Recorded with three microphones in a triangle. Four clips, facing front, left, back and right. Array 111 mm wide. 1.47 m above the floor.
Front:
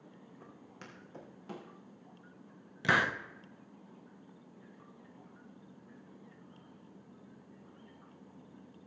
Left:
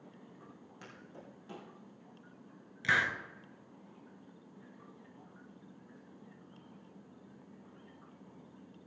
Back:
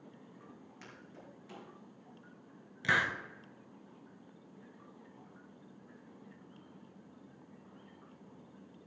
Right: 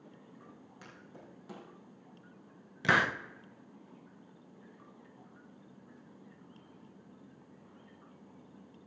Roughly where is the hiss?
Ahead right.